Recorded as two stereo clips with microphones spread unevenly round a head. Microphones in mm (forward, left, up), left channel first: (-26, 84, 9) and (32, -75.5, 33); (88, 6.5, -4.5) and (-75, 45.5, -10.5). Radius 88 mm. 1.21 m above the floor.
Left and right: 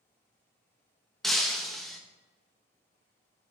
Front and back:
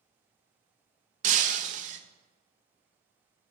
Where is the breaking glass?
155° right, 0.5 m.